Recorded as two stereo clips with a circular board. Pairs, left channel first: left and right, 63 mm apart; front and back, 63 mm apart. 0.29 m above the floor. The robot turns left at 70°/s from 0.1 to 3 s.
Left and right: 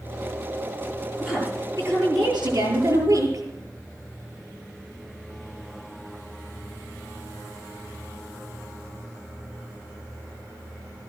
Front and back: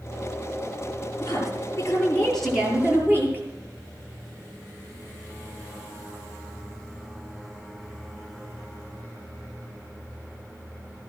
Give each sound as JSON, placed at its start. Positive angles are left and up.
{"t": 1.2, "sound": "a woman speaking", "azimuth_deg": 0, "distance_m": 7.5}